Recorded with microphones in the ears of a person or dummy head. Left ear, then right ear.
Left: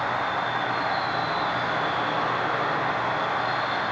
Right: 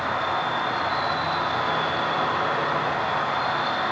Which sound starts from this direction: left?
An insect, at 0.0 s.